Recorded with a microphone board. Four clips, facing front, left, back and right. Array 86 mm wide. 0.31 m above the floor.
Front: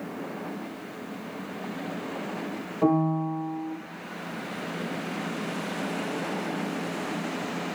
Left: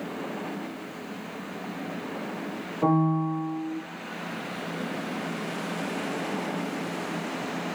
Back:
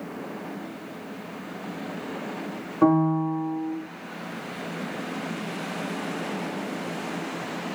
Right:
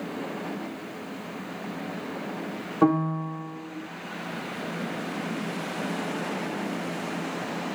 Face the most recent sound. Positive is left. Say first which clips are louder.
# even, back 3 dB
turn(degrees=-120)